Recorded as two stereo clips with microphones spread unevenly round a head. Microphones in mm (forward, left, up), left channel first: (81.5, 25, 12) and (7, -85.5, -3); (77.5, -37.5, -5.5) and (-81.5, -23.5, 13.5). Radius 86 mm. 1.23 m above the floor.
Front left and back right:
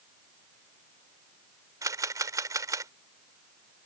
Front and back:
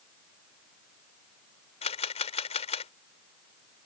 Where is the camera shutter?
55° right.